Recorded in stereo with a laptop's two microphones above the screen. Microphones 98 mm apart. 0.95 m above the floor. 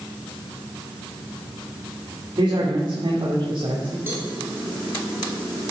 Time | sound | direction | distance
2.4 | a man speaking | 60° right (ahead or behind) | 2.5 m
4.1 | a cowbell | 25° right (ahead or behind) | 2.5 m